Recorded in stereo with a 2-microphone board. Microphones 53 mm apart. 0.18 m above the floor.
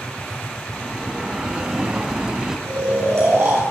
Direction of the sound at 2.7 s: 60° right (ahead or behind).